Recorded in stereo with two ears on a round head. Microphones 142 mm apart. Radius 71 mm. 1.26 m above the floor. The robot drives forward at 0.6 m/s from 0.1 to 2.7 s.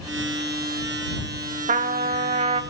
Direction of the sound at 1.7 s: 45° right (ahead or behind).